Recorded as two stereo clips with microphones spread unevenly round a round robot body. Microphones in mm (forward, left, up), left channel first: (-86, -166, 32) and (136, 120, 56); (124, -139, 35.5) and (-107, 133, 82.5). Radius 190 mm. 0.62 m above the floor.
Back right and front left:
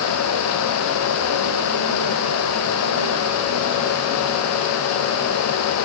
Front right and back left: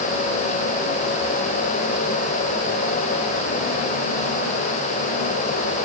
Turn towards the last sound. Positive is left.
No sound to turn to.